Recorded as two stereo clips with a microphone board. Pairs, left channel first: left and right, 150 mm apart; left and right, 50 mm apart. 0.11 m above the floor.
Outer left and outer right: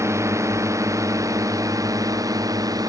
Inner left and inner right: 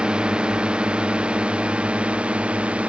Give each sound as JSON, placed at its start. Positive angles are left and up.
{"t": 0.0, "sound": "a drone", "side_deg": -20}